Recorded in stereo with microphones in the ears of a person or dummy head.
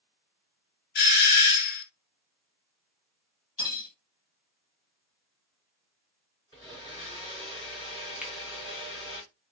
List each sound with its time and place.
0.9 s a doorbell: 55° left (ahead or behind), 0.9 m
3.6 s cutlery clinking: 25° left (ahead or behind), 1.1 m
6.5 s a blender: 15° left (ahead or behind), 1.4 m
8.2 s a finger snap: 5° right (ahead or behind), 0.7 m